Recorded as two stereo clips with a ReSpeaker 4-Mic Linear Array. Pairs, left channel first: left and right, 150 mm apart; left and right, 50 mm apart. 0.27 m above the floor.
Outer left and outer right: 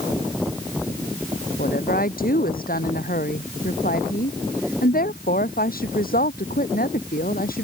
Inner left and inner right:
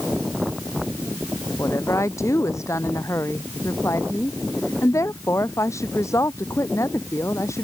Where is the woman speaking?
75° left (ahead or behind).